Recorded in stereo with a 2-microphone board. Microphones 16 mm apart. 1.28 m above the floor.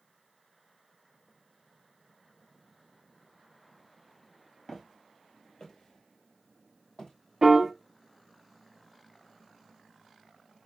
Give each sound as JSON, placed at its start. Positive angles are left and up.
{"t": 4.7, "sound": "footsteps", "side_deg": 35, "distance_m": 1.5}
{"t": 7.4, "sound": "a piano", "side_deg": -25, "distance_m": 0.5}